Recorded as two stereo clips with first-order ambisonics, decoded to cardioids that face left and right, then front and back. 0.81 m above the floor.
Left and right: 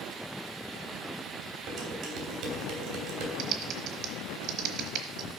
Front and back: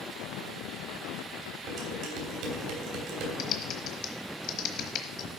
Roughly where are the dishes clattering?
Behind right.